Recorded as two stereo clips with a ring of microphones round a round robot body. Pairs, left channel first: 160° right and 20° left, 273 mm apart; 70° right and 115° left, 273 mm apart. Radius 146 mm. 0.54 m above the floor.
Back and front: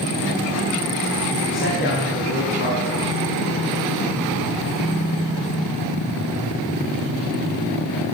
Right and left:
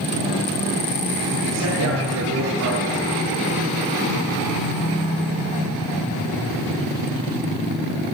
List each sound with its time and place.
1.5 s a man speaking: 150° left, 6.5 m